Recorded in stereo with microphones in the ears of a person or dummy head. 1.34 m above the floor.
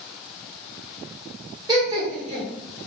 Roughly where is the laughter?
Right.